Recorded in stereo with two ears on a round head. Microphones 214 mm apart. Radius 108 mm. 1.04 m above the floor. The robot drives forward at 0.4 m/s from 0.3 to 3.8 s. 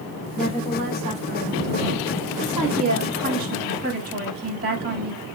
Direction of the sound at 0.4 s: 25° right (ahead or behind).